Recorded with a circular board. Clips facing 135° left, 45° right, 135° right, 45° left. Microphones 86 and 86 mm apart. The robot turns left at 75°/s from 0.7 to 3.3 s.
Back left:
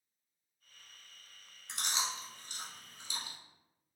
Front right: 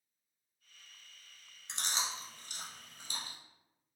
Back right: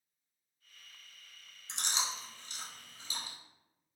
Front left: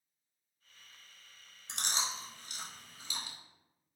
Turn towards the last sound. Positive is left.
turn(degrees=-95)